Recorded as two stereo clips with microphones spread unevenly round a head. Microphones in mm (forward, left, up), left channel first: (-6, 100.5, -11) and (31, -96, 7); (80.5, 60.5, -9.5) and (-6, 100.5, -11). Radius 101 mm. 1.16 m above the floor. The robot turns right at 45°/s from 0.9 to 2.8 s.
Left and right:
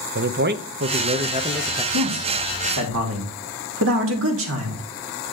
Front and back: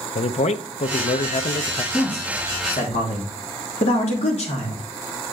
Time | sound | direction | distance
0.1 | a man speaking | 40° right | 0.7 m
1.9 | a man speaking | 95° right | 2.5 m